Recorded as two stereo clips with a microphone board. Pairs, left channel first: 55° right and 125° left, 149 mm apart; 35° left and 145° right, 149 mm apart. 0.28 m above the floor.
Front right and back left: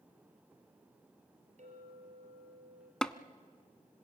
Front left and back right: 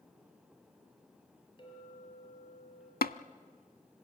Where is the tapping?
30° left, 0.5 m.